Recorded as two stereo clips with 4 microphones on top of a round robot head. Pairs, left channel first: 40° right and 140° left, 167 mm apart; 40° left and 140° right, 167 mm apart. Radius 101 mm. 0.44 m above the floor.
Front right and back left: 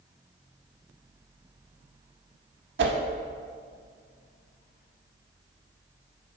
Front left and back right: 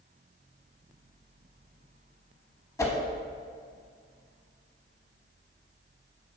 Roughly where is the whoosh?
Behind left.